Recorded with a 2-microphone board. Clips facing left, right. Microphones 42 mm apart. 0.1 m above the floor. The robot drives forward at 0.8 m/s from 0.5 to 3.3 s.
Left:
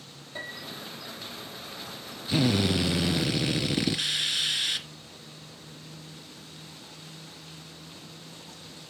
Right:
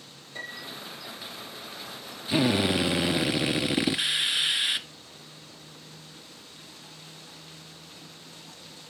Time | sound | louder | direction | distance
0.3 | a piano | even | 30° left (ahead or behind) | 3.5 m
2.3 | a drill | right 1 dB | 15° right (ahead or behind) | 0.9 m